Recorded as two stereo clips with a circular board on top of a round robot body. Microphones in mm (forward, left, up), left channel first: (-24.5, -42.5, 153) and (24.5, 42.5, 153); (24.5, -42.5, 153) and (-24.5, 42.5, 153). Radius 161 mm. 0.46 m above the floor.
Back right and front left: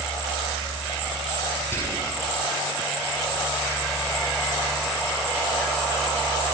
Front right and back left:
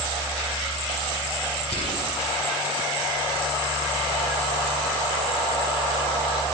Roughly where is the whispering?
Ahead right.